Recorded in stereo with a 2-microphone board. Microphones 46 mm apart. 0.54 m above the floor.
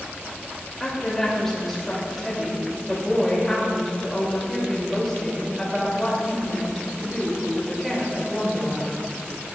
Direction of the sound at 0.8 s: 5° left (ahead or behind).